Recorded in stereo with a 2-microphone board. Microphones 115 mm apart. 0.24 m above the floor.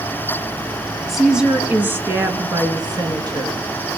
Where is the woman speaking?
Centre (ahead or behind), 2 m; by 3.7 s 40° right (ahead or behind), 3.5 m.